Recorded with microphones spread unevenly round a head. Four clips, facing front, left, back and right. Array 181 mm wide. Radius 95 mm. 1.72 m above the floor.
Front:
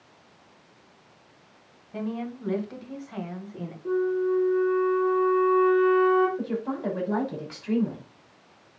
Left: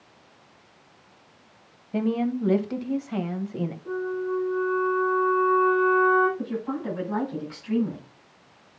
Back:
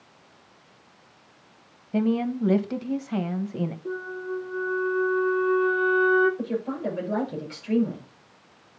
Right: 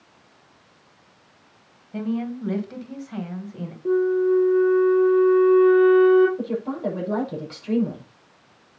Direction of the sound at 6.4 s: 55° right.